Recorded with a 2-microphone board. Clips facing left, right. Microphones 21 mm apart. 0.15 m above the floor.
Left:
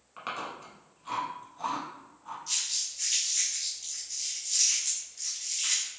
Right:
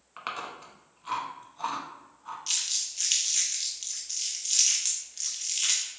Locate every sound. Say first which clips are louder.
0.2 s chewing: even; 20° right (ahead or behind), 0.9 m
2.5 s crumpling: right 2 dB; 60° right (ahead or behind), 1.3 m